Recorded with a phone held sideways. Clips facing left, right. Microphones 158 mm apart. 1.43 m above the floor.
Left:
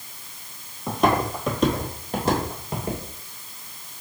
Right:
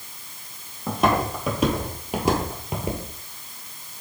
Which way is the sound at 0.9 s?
Centre (ahead or behind).